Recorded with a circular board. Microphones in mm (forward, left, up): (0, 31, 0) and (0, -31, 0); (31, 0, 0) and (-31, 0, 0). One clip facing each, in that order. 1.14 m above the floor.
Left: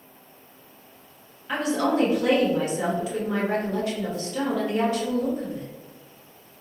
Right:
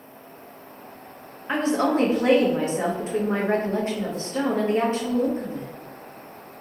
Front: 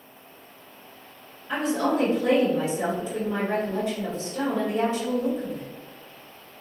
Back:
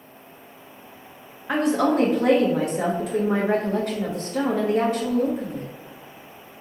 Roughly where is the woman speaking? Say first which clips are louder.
Right 2 dB, back 4 dB; behind right.